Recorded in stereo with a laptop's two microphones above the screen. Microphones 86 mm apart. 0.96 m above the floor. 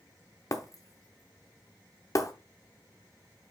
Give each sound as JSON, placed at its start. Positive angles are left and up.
{"t": 0.5, "sound": "breaking glass", "side_deg": 40, "distance_m": 0.8}